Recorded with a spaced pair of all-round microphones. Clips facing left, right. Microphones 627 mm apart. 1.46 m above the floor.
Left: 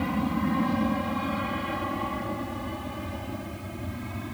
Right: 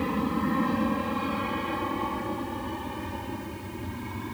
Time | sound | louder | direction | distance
0.0 | an aircraft | even | 15° left (ahead or behind) | ?